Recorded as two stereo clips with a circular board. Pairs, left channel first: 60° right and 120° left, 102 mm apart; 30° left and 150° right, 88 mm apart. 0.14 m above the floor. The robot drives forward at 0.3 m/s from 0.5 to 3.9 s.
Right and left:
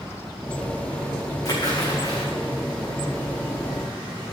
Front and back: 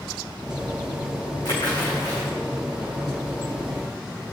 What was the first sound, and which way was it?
A splash, 5° right.